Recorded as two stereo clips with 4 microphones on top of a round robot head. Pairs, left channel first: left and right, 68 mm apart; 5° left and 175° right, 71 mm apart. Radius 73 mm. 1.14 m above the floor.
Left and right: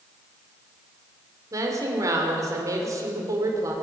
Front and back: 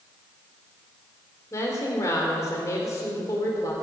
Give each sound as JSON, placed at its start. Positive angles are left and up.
{"t": 1.5, "sound": "a woman speaking", "azimuth_deg": -50, "distance_m": 3.0}